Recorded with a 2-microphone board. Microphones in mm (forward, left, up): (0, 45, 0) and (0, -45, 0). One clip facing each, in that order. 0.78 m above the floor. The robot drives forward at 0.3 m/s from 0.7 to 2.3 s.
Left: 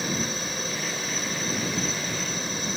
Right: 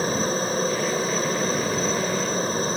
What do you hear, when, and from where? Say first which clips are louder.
0.0 s a helicopter: right 6 dB; 40° right (ahead or behind)